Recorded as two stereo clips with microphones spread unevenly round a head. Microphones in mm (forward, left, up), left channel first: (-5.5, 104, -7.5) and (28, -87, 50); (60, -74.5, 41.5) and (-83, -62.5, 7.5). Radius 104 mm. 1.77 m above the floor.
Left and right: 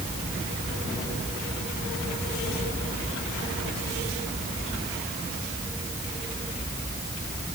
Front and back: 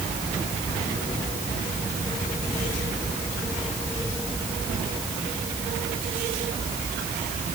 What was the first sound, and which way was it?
Only background noise.